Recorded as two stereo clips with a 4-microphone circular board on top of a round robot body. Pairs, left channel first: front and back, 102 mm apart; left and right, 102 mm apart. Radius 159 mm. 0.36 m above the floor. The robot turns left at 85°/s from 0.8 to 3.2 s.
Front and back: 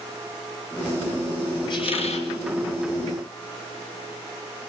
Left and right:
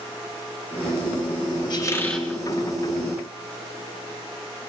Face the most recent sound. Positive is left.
turn(degrees=-85)